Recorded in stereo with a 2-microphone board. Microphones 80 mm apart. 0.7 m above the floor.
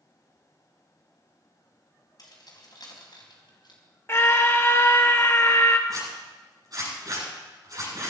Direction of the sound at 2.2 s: 55° left (ahead or behind).